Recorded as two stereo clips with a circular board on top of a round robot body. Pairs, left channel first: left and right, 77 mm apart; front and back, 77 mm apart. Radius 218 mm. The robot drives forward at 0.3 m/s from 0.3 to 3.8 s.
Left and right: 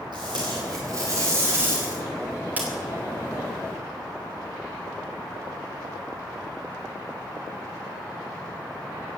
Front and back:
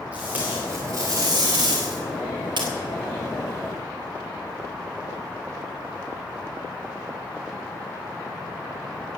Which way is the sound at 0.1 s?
110° right.